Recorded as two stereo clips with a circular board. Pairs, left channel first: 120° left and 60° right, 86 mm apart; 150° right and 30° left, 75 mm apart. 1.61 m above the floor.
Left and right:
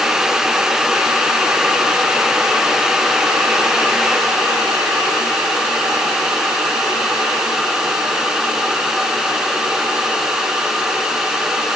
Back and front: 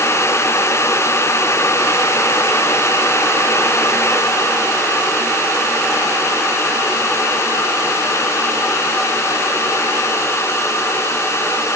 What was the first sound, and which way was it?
Only background noise.